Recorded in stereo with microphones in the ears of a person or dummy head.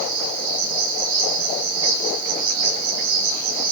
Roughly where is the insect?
Right.